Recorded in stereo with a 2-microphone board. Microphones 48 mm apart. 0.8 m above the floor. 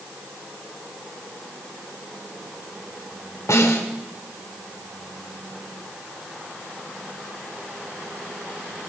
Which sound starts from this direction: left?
A snare drum, at 3.5 s.